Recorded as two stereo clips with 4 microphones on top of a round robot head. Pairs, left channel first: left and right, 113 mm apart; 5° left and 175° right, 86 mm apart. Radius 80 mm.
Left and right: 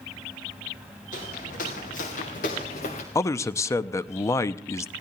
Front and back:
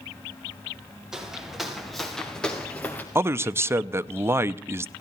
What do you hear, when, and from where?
1.1 s footsteps: 105° left, 5.5 m; by 3.0 s 75° left, 3.5 m
3.1 s a man speaking: 140° left, 0.6 m